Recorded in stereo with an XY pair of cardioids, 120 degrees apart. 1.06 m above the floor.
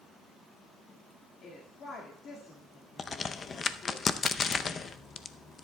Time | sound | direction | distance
1.4 | a woman speaking | 55° left | 1.9 m
3.0 | a crack | 35° left | 0.6 m